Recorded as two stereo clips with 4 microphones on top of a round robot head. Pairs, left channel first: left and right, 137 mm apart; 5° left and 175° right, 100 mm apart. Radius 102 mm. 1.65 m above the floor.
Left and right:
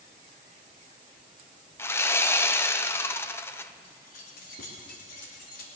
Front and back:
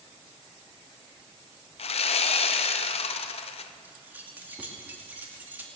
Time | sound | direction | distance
1.8 | sawing | 20° left | 0.7 m
3.8 | keys jangling | 110° left | 2.5 m